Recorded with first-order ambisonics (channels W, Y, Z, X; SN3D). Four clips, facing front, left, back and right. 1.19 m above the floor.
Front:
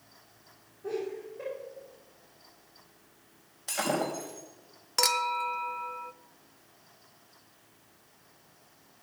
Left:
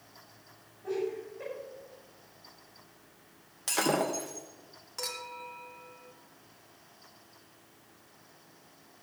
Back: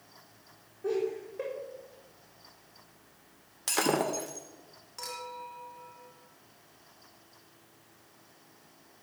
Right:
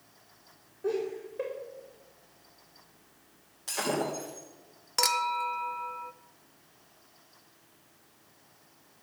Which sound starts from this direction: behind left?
Breaking glass, at 3.7 s.